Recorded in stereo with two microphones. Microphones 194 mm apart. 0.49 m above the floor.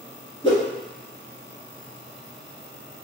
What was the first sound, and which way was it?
A whoosh, 25° left (ahead or behind).